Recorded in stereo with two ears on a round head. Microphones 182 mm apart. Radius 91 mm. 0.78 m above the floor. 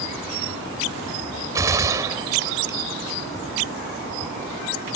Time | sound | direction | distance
1.6 | a gunshot | 15° right (ahead or behind) | ?